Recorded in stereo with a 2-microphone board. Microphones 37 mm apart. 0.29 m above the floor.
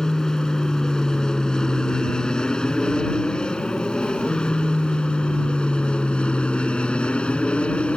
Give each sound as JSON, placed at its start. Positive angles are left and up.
{"t": 0.0, "sound": "an aircraft", "side_deg": 15}